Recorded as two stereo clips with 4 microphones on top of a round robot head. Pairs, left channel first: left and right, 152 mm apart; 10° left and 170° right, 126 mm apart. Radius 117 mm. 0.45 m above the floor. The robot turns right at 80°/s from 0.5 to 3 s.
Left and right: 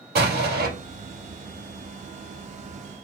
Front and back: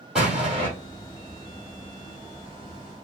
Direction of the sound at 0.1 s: 80° right.